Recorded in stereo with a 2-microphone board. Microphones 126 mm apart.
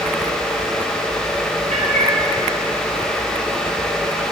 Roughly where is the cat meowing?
Right.